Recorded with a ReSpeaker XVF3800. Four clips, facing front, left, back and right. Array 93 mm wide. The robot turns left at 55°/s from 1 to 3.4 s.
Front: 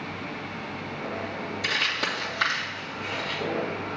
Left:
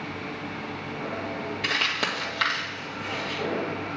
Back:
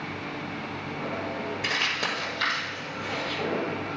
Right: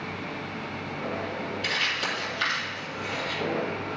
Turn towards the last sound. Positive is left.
turn(degrees=25)